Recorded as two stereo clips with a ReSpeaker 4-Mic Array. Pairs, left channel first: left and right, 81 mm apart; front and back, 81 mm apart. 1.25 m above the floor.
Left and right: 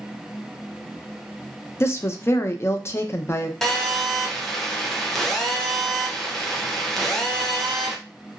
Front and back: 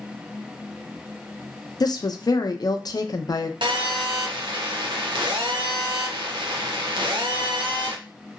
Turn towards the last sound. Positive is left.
turn(degrees=175)